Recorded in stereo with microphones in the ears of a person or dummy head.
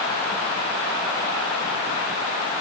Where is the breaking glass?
No breaking glass in this recording.